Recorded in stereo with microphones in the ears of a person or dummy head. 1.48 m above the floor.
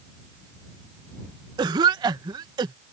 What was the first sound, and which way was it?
A cough, 20° right (ahead or behind).